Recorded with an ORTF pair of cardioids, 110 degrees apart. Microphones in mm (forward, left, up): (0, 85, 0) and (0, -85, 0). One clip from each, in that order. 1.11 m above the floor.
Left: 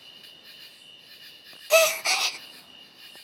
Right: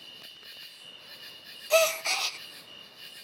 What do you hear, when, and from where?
0.0 s an insect: 5° right, 2.5 m
1.7 s a gasp: 20° left, 0.5 m